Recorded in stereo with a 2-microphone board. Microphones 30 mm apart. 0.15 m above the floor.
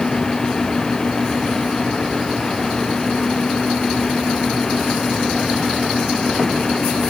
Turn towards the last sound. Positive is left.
No sound to turn to.